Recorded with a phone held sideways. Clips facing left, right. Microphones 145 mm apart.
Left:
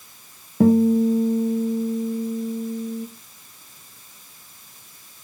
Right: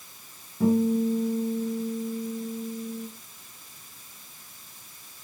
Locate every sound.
0.6 s a guitar: 75° left (ahead or behind), 1.1 m